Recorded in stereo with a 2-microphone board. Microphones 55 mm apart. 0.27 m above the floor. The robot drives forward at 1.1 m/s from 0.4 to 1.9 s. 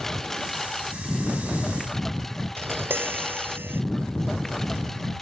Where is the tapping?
40° right (ahead or behind).